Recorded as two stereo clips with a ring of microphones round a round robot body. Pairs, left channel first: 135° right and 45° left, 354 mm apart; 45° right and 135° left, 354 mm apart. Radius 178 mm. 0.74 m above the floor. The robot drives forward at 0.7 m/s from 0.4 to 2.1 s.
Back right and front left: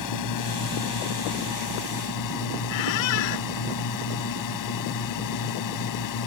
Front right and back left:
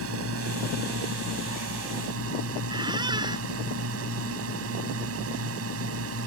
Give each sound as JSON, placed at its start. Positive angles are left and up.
{"t": 0.0, "sound": "a drone", "azimuth_deg": -170}
{"t": 2.7, "sound": "a squeak", "azimuth_deg": -145}